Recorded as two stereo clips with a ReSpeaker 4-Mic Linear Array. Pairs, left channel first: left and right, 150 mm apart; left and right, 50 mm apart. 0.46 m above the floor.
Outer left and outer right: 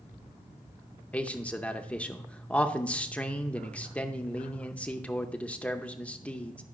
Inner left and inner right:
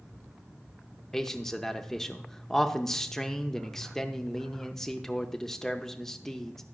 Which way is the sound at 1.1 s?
10° left (ahead or behind).